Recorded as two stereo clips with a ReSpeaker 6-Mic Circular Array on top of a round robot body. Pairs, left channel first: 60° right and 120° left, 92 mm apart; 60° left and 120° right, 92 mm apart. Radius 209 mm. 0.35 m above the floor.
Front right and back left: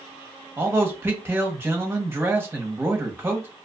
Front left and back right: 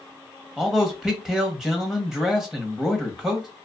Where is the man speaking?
160° left, 1.2 m.